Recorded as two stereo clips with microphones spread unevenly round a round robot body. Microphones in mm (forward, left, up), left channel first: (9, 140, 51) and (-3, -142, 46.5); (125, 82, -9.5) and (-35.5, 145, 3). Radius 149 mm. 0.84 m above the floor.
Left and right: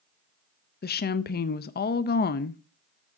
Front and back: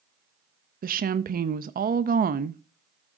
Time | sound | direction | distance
0.8 | a woman speaking | 135° left | 0.6 m